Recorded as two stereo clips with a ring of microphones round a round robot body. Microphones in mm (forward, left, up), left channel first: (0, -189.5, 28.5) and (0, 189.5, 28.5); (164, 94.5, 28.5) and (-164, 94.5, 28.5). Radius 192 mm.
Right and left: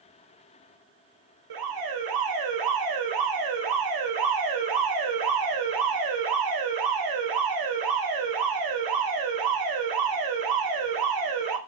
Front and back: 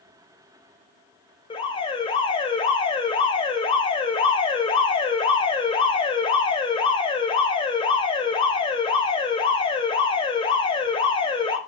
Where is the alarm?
75° left, 2.5 m.